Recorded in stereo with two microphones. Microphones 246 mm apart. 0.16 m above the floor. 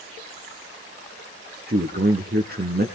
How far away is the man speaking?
About 2.5 m.